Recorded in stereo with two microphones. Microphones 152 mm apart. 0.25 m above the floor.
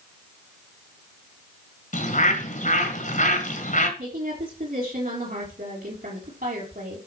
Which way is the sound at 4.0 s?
70° right (ahead or behind).